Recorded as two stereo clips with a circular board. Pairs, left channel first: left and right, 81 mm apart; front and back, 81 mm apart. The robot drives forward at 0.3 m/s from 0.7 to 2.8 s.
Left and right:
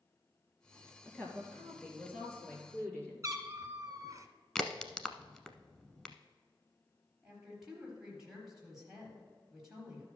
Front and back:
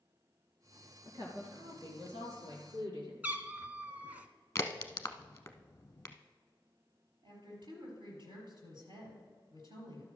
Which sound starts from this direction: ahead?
A crack, at 4.5 s.